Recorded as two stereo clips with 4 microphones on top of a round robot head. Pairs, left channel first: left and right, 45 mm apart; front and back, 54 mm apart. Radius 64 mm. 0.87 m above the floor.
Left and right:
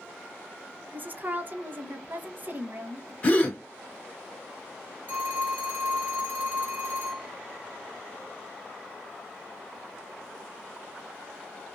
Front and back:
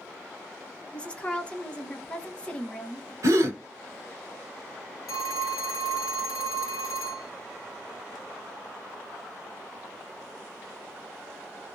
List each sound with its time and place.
0.9 s a woman speaking: 65° right, 0.7 m
3.2 s a gasp: 150° left, 0.9 m
5.1 s a phone ringing: 35° right, 0.9 m